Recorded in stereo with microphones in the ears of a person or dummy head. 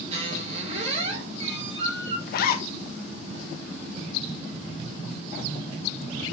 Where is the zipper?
60° left (ahead or behind), 0.9 m.